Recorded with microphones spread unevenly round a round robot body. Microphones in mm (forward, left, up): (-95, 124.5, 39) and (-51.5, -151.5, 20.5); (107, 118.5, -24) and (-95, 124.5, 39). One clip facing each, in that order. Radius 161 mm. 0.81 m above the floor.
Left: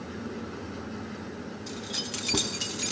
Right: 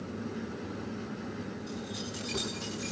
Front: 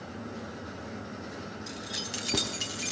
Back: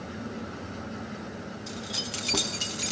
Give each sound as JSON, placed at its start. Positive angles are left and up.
{"t": 1.7, "sound": "keys jangling", "azimuth_deg": 70, "distance_m": 3.5}